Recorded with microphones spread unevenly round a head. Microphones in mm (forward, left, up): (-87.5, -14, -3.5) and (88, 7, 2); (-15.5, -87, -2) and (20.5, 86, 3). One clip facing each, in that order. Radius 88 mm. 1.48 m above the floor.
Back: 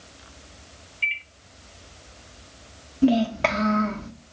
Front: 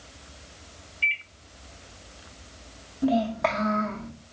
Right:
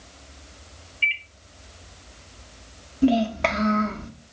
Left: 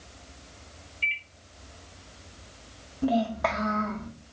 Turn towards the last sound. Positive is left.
turn(degrees=-140)